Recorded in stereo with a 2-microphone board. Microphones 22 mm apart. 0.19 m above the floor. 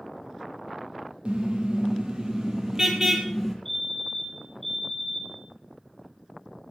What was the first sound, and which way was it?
A car horn, 50° right (ahead or behind).